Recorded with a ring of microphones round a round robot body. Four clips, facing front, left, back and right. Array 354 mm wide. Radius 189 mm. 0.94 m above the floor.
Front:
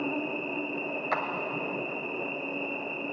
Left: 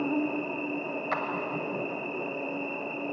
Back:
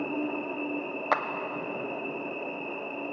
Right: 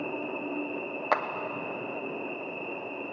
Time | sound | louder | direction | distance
0.0 | an insect | left 5 dB, back 1 dB | 80° left | 1.0 m
1.1 | a clap | right 5 dB, back 4 dB | 130° right | 0.7 m